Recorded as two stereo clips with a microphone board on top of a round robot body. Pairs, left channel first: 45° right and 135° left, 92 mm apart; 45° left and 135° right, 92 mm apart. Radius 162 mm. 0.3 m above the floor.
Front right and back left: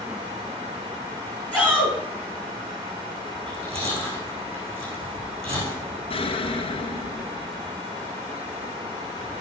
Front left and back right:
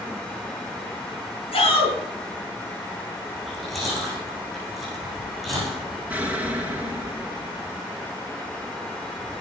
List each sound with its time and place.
1.5 s a shout: 55° left, 5 m
3.4 s chewing: 135° left, 7.5 m
6.1 s an explosion: 55° right, 1.9 m